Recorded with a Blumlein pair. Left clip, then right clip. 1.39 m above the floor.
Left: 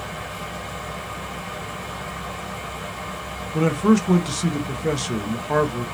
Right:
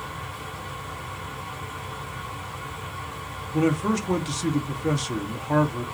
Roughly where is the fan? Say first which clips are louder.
Left 3 dB; ahead left.